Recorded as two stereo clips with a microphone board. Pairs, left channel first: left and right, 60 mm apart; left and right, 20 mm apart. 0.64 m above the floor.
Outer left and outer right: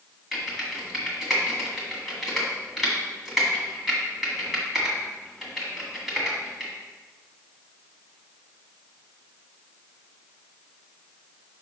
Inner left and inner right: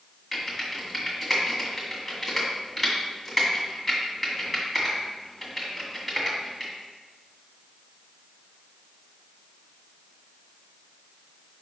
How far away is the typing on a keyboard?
About 1.8 m.